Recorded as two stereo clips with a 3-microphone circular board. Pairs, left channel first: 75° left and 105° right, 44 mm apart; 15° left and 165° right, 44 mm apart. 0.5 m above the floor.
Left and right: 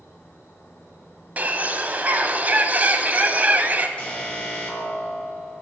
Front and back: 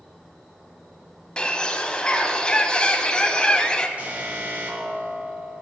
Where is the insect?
110° left, 3.5 m.